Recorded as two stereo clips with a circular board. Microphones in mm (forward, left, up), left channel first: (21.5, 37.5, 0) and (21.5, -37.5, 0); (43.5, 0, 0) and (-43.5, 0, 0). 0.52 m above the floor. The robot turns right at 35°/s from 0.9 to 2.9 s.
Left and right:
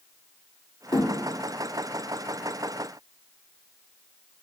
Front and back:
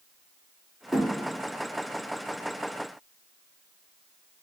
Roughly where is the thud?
Left.